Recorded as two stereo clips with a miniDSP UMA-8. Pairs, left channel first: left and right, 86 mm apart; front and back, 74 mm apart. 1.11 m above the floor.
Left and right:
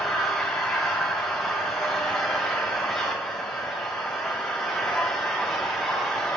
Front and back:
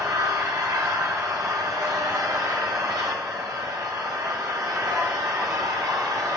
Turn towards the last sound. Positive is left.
turn(degrees=175)